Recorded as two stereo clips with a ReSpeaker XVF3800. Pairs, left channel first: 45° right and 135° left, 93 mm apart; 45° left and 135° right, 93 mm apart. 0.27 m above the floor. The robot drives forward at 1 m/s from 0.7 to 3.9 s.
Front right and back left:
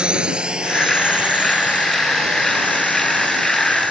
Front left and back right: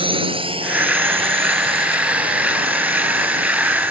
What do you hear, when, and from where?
0.0 s a drone: 145° right; by 3.9 s 150° right